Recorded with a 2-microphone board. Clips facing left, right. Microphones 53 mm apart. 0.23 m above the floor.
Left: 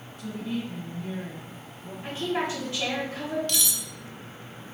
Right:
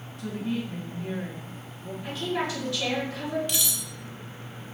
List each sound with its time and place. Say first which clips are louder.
0.2 s a woman speaking: right 1 dB; 50° right (ahead or behind), 2 m
2.0 s a woman speaking: left 1 dB; 30° left (ahead or behind), 1.4 m
3.5 s cutlery clinking: left 1 dB; 15° right (ahead or behind), 0.7 m